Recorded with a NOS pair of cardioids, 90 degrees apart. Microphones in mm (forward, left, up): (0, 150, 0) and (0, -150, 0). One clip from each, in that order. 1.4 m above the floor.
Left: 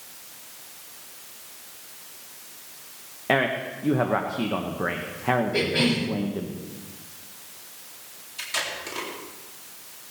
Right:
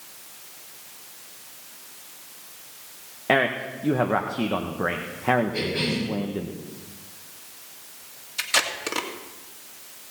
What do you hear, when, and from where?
3.3 s a man speaking: 10° right, 1.1 m
5.5 s a cough: 35° left, 5 m
8.4 s tape being pulled: 55° right, 2 m